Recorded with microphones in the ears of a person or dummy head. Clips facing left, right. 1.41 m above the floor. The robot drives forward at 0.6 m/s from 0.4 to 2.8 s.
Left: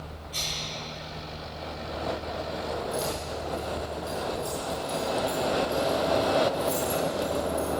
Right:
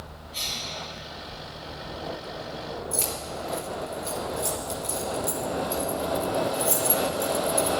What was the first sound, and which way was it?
A cough, 45° left (ahead or behind).